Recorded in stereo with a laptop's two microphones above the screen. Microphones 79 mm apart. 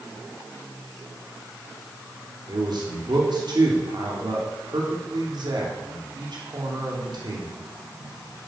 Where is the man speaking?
65° right (ahead or behind), 3 m.